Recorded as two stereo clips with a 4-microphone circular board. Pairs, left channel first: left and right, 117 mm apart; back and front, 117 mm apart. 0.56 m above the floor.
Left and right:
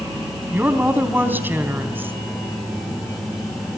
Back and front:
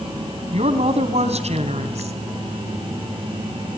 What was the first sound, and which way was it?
A woman speaking, 15° right.